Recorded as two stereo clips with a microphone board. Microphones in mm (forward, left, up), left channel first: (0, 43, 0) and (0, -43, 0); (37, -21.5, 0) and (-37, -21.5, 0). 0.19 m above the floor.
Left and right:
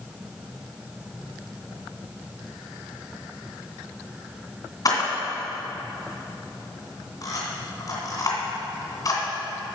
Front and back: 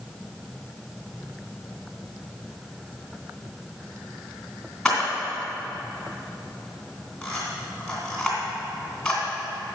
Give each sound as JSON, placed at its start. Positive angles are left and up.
{"t": 4.8, "sound": "a camera shutter", "azimuth_deg": 85, "distance_m": 2.5}